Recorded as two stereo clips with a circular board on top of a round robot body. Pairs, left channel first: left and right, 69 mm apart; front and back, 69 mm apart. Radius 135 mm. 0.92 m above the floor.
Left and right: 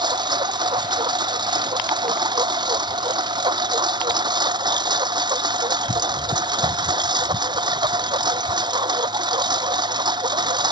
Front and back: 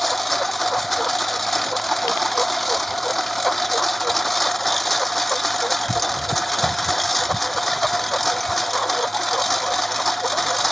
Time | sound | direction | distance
0.0 | a lawn mower | 85° right | ?